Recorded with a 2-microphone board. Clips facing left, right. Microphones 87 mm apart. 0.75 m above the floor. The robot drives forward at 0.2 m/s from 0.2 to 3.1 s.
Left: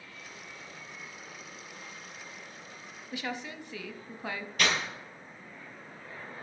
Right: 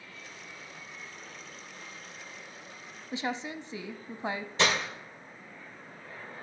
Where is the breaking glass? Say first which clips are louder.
Right 2 dB; 25° right (ahead or behind), 2 m.